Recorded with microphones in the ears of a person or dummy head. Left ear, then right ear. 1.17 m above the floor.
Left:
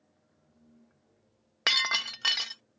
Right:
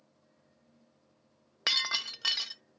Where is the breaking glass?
25° left (ahead or behind).